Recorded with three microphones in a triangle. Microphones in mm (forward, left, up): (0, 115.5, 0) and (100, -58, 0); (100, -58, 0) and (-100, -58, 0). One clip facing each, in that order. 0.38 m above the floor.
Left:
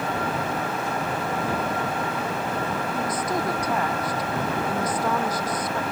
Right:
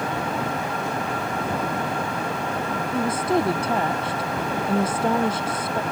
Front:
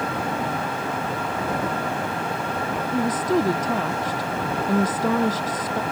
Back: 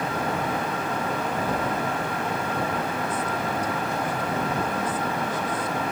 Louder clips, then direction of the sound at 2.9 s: Right 8 dB, front 7 dB; 5° left.